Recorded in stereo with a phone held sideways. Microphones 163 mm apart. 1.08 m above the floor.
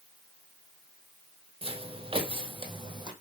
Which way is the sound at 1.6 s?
35° right (ahead or behind).